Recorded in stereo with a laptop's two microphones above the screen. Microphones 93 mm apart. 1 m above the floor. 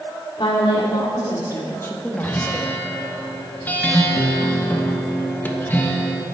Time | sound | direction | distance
0.4 | a woman speaking | 60° left (ahead or behind) | 2 m
2.2 | a guitar | 20° left (ahead or behind) | 1.2 m